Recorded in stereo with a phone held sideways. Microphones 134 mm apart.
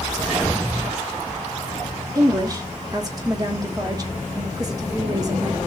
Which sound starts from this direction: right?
A woman speaking, at 2.1 s.